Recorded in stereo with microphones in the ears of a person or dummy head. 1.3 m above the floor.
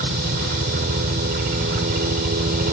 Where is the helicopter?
45° right (ahead or behind).